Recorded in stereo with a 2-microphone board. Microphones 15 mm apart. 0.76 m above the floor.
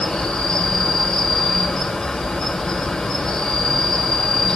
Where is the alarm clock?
No alarm clock in this recording.